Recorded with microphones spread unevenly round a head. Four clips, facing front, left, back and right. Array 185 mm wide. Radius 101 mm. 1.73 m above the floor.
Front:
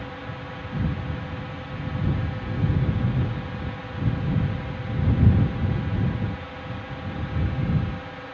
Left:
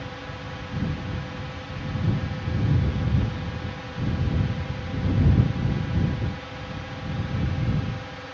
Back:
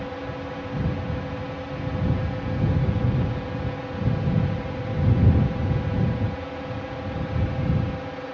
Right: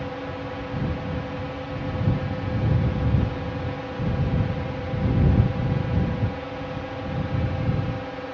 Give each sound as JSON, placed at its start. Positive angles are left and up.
{"t": 0.0, "sound": "a drone", "azimuth_deg": -135}